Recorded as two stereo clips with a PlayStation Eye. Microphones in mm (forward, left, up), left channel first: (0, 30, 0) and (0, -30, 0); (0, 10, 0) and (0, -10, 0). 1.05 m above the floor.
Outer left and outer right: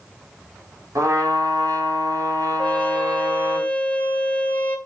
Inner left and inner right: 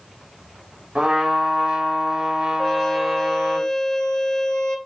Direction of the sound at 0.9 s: 65° right (ahead or behind).